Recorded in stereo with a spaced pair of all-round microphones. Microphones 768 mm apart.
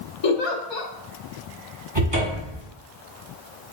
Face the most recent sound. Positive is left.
turn(degrees=-35)  # may be behind; listen again after turning